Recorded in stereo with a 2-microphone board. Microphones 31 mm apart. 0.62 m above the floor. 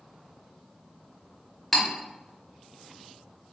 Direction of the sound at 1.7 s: 5° left (ahead or behind).